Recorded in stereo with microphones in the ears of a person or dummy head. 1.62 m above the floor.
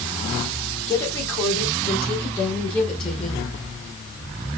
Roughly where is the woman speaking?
Centre.